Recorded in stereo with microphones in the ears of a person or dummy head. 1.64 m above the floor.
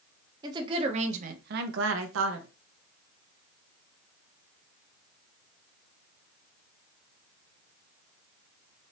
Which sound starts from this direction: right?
A woman speaking, at 0.4 s.